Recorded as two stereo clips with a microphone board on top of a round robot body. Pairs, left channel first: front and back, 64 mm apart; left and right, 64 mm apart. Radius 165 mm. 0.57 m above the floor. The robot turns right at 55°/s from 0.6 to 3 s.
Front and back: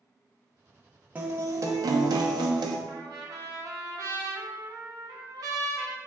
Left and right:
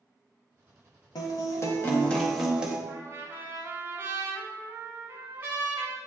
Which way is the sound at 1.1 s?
110° left.